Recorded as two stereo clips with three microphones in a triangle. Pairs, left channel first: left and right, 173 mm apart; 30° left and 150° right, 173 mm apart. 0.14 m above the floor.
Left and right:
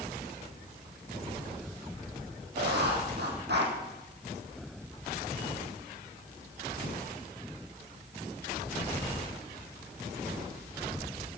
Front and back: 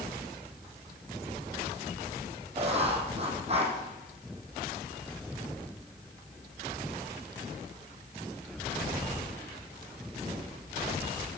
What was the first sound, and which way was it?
Writing, 95° right.